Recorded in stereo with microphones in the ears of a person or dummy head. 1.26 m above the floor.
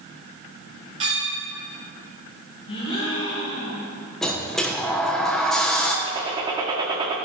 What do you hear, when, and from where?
1.0 s a clink: 35° right (ahead or behind), 5 m
2.7 s a gasp: 30° left (ahead or behind), 4.5 m
4.2 s a sliding door: centre (ahead or behind), 1.0 m
6.0 s a gunshot: 25° right (ahead or behind), 1.5 m